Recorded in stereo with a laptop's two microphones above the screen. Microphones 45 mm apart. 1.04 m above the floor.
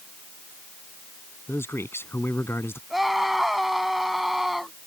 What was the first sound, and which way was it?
A man speaking, 65° left (ahead or behind).